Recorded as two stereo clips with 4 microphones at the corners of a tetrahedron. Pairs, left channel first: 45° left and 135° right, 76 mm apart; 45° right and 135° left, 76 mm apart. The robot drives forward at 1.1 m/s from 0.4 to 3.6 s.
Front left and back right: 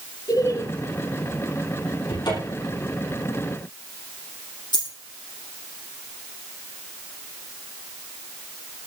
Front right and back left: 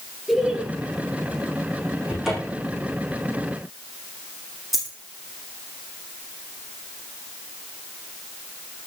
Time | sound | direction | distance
0.3 | laughter | 50° left | 2.0 m
2.1 | a cupboard door | 50° left | 7 m
4.7 | a dropped coin | 50° left | 6 m